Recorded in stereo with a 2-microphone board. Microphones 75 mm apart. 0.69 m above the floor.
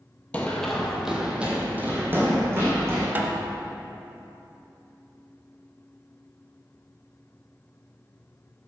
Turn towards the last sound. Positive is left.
turn(degrees=-25)  # may be behind; listen again after turning